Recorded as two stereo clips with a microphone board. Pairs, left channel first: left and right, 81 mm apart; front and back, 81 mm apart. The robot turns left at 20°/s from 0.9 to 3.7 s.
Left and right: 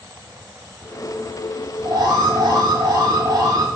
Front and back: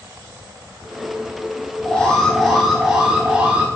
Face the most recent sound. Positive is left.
turn(degrees=-115)